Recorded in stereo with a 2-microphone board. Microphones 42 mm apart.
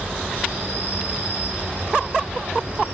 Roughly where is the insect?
Right.